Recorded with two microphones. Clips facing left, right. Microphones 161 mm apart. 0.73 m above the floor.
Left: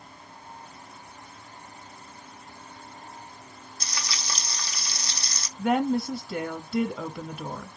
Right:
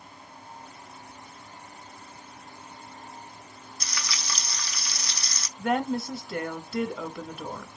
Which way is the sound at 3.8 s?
30° left (ahead or behind).